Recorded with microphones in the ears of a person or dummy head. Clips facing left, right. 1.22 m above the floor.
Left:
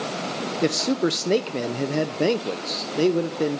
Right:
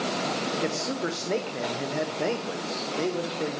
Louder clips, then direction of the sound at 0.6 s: Left 7 dB; 40° left (ahead or behind).